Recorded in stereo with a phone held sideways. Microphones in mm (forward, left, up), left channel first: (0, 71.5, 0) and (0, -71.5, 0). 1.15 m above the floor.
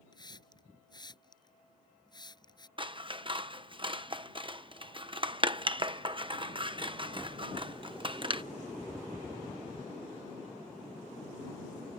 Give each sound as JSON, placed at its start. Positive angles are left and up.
{"t": 0.1, "sound": "a hiss", "side_deg": 30}
{"t": 2.8, "sound": "scissors", "side_deg": -35}